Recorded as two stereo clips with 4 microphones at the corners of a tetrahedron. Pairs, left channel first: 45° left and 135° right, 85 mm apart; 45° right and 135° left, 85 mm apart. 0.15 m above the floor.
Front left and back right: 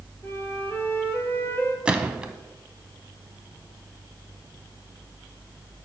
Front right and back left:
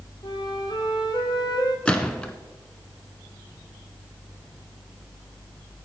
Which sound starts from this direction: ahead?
A flute, at 0.2 s.